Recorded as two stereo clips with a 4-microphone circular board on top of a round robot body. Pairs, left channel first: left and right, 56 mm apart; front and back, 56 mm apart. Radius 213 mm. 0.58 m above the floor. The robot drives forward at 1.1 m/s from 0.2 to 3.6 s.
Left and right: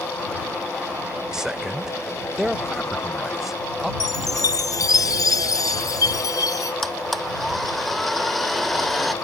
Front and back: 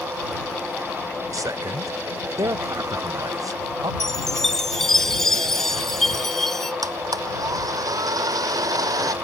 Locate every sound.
1.3 s a man speaking: 170° right; by 3.9 s 175° right
4.0 s a chime: 85° left
6.8 s a blender: straight behind